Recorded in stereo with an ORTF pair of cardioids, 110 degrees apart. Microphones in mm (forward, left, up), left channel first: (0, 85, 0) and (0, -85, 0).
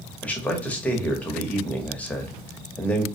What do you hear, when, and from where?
0.2 s a man speaking: 10° left, 0.8 m